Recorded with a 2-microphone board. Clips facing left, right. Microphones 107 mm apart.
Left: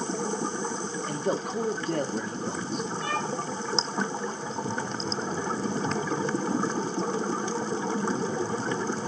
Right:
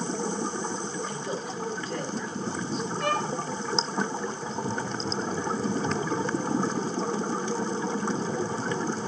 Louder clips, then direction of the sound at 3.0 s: Right 6 dB; 80° right.